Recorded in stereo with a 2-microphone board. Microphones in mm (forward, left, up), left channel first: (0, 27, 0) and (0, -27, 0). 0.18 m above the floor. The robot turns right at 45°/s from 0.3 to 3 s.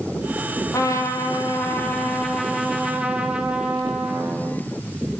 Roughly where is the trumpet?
Left.